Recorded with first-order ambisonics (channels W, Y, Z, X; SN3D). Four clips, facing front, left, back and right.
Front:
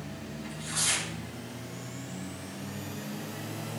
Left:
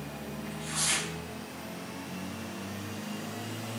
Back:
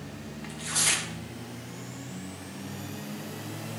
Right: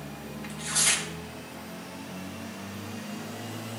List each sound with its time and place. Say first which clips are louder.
0.4 s tearing paper: right 5 dB, back 3 dB; 135° right, 1.8 m